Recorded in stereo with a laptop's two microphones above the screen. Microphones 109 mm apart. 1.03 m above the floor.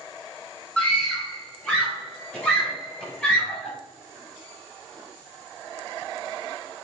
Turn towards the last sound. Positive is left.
turn(degrees=10)  # may be behind; listen again after turning